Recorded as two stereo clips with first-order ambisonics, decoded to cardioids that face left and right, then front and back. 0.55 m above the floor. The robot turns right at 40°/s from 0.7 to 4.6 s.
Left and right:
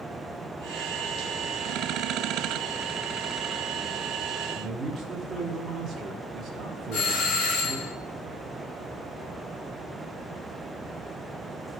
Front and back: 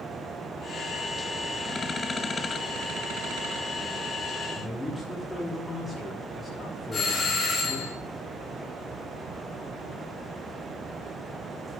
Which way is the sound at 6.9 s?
70° left.